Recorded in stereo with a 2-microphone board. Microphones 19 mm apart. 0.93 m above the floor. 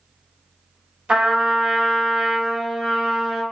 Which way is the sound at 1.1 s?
60° right (ahead or behind).